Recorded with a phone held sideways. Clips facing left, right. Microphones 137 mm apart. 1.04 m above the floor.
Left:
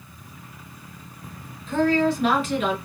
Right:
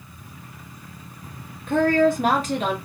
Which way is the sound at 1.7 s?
60° right (ahead or behind).